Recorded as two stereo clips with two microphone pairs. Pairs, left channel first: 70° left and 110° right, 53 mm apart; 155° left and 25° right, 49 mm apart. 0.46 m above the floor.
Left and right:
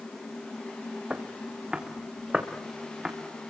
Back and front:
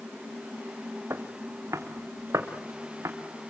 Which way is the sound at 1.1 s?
45° right.